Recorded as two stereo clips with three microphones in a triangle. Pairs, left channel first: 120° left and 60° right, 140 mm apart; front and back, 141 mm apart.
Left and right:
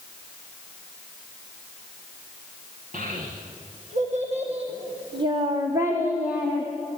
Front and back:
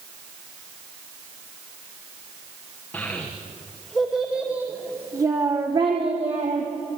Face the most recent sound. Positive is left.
turn(degrees=-150)